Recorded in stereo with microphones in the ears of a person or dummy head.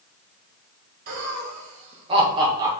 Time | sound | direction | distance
1.1 | laughter | 55° right (ahead or behind) | 1.6 m